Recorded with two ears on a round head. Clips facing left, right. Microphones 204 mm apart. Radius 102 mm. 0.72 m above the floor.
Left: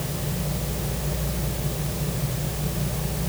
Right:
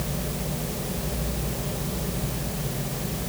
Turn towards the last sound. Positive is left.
No sound to turn to.